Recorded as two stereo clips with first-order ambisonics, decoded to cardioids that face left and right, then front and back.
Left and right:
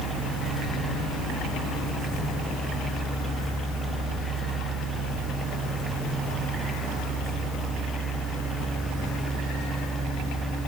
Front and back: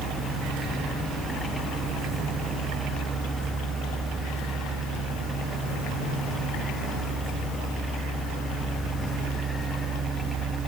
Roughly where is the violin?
I don't hear a violin.